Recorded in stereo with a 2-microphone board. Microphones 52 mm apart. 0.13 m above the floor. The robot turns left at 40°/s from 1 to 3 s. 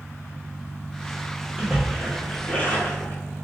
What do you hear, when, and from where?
1.6 s a splash: 165° right, 1.0 m; by 3.2 s 140° left, 1.0 m